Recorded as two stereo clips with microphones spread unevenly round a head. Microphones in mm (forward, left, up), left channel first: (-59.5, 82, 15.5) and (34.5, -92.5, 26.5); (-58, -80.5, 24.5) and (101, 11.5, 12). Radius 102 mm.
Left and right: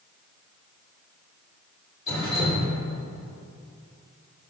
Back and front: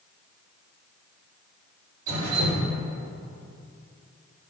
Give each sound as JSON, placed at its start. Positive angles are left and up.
{"t": 2.1, "sound": "dripping", "azimuth_deg": 55, "distance_m": 3.5}